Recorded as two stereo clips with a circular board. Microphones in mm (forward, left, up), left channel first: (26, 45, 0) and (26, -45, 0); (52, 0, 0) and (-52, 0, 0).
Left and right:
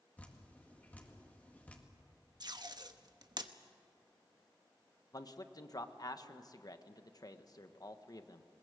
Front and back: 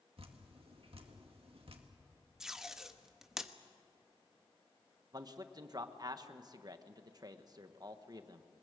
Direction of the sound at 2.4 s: 95° right.